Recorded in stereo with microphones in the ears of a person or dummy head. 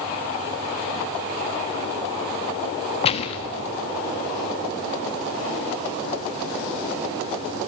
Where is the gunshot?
40° left (ahead or behind), 1.2 m.